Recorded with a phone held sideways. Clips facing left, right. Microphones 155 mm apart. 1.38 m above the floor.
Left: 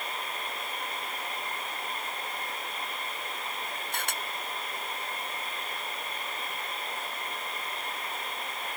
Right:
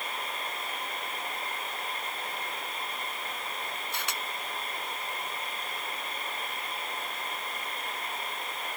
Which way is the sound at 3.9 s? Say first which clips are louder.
Left 2 dB; 50° left (ahead or behind).